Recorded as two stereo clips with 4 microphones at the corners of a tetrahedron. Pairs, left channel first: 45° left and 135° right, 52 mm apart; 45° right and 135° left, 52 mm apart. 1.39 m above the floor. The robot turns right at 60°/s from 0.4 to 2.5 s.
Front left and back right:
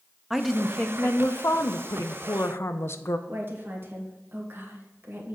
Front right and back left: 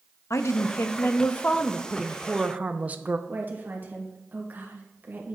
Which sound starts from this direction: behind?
A woman speaking, at 3.3 s.